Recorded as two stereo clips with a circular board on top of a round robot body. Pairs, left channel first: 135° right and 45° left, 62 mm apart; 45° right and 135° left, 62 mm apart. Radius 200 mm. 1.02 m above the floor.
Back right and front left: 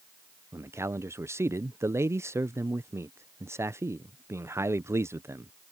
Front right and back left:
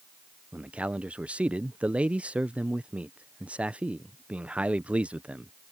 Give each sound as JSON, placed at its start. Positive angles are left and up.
{"t": 0.5, "sound": "a man speaking", "azimuth_deg": 70}